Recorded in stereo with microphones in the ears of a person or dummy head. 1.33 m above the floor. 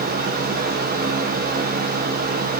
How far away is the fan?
About 0.7 m.